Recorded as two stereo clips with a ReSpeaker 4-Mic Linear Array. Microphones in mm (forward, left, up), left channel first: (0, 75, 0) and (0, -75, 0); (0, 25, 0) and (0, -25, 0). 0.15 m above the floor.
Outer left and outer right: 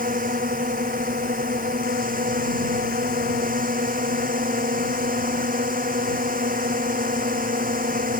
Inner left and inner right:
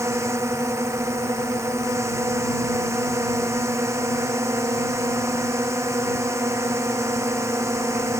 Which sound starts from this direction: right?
A drone, at 0.0 s.